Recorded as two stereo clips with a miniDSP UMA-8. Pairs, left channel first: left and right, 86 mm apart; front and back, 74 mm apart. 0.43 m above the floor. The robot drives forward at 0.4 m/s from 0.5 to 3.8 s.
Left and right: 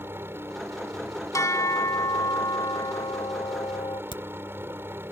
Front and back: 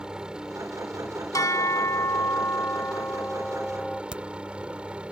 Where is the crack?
105° left.